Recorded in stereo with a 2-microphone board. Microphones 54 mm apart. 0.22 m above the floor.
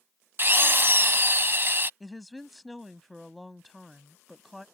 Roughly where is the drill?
Right.